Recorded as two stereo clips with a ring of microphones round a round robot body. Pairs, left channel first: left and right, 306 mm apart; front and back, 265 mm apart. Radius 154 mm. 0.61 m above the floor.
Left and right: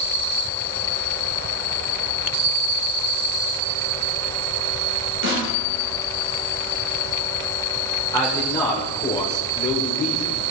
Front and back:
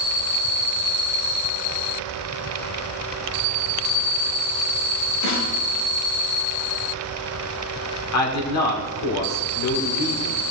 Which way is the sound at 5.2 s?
35° right.